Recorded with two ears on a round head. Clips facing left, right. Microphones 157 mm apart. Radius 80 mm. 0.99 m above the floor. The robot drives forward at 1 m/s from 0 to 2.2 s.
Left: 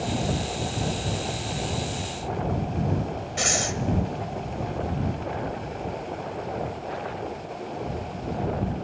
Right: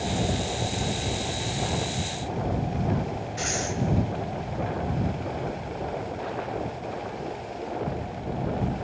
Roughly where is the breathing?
Left.